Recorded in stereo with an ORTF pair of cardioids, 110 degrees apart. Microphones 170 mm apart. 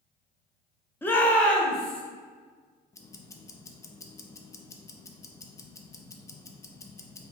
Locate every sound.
1.0 s a shout: 10° left, 0.8 m; by 2.0 s 5° left, 1.8 m
2.9 s ticking: 20° left, 0.5 m